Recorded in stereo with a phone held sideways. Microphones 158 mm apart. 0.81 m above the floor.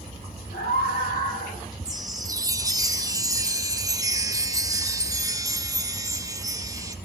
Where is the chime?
20° right (ahead or behind), 1.2 m.